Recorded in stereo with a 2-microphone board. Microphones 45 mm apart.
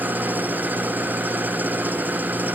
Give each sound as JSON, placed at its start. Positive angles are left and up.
{"t": 0.0, "sound": "an engine running", "side_deg": -45}